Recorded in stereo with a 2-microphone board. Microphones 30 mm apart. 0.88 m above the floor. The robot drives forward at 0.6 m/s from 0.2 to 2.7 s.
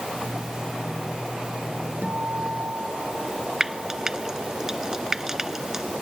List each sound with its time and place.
2.0 s a guitar: 70° right (ahead or behind)
3.6 s frying: 20° right (ahead or behind)